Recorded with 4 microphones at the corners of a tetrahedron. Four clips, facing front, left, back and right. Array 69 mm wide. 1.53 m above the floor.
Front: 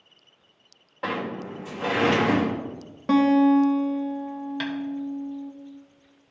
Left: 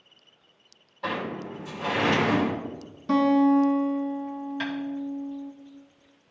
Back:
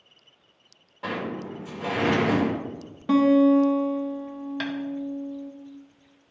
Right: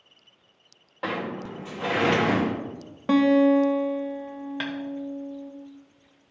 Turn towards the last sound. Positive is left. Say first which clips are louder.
# even, even
turn(degrees=-100)